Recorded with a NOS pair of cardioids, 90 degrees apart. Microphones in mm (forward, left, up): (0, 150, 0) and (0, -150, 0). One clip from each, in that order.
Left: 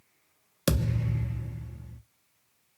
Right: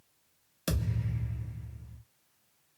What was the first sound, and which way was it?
A thud, 45° left.